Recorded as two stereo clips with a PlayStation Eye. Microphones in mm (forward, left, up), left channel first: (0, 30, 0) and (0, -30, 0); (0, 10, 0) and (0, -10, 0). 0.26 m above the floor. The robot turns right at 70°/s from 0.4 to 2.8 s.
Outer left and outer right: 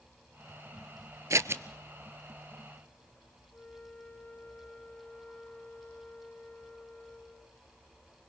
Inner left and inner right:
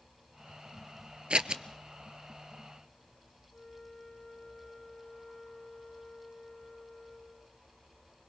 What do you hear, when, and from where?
1.3 s scissors: 60° right (ahead or behind), 0.7 m; by 1.6 s 40° right (ahead or behind), 0.7 m
3.5 s a flute: 15° left (ahead or behind), 1.4 m